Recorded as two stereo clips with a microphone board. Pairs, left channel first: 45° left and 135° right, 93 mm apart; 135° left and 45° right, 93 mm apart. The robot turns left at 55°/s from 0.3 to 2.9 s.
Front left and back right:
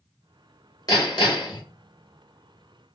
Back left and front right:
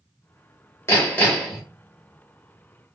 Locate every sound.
0.9 s hammering: 80° left, 1.2 m; by 1.6 s 40° left, 1.2 m